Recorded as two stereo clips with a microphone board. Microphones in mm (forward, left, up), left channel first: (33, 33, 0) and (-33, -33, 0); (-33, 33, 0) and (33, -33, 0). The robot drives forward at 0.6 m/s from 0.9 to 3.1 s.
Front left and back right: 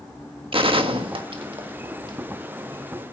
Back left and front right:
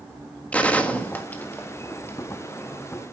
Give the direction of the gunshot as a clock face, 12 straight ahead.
5 o'clock.